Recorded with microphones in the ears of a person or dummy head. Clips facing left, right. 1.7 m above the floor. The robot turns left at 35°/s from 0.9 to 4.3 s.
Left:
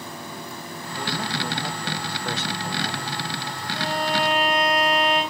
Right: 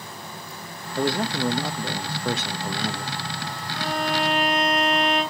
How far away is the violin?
About 6 m.